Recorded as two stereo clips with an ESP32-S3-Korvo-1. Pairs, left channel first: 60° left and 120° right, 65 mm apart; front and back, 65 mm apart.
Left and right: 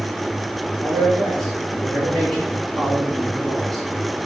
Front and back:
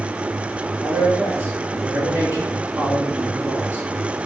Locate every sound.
0.8 s a man speaking: 130° left, 3.5 m